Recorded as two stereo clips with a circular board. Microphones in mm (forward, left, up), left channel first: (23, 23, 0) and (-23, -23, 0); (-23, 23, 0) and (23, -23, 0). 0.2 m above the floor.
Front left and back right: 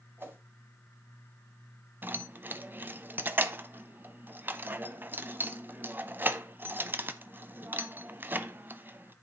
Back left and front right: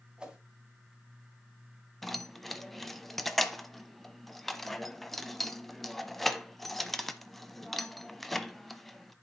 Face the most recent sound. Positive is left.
turn(degrees=-140)